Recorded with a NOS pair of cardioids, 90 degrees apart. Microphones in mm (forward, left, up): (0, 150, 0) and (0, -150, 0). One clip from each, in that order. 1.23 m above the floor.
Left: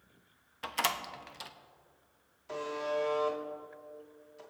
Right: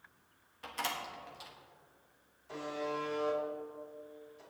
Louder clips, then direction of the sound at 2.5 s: Left 4 dB; 55° left.